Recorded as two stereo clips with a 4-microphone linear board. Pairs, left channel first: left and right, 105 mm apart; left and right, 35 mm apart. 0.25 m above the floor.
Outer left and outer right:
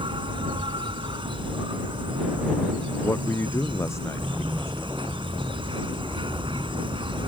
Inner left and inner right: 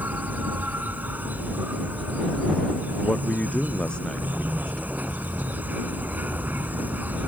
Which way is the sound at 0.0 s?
55° right (ahead or behind).